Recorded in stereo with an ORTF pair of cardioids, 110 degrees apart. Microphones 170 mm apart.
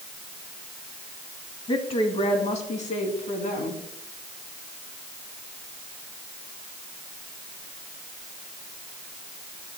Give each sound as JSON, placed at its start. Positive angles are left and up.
{"t": 1.7, "sound": "a woman speaking", "azimuth_deg": 30, "distance_m": 2.0}